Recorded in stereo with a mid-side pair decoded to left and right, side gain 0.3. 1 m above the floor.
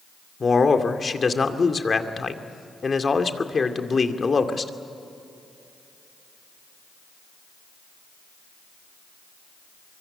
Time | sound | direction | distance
0.4 | a man speaking | 45° left | 2.5 m